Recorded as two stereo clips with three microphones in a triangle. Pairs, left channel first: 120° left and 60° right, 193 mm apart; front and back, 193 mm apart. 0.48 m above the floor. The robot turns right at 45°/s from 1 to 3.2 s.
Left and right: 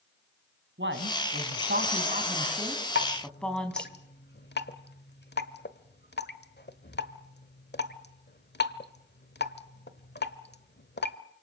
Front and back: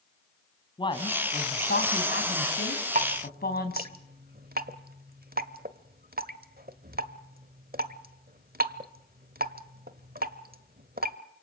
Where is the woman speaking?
65° right, 3 m; by 3.9 s 35° left, 3 m.